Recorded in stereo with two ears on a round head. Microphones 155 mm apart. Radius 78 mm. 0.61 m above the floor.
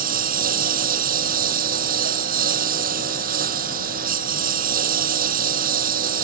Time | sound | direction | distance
0.0 | a lawn mower | 60° right (ahead or behind) | ?